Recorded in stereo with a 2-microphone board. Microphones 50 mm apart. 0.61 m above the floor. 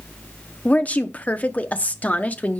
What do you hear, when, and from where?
0.7 s a woman speaking: 30° left (ahead or behind), 0.7 m